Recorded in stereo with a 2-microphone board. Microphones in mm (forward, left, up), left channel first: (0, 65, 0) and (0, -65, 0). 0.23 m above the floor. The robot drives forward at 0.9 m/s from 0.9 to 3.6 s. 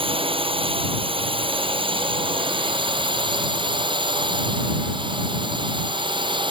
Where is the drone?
45° right (ahead or behind); by 6.5 s 40° right (ahead or behind).